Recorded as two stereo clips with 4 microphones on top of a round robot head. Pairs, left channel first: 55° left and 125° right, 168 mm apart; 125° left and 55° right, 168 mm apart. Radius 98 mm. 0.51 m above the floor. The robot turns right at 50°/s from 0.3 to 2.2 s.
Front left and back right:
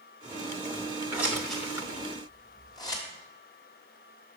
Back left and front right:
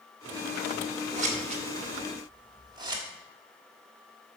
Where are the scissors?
55° right, 1.5 m; by 3.0 s straight ahead, 1.5 m.